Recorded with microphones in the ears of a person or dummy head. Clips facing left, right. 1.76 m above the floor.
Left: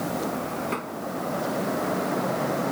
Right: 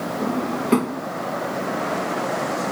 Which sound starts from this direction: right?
A drawer, at 0.2 s.